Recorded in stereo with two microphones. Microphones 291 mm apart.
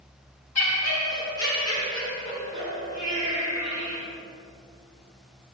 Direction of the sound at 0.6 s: 60° left (ahead or behind).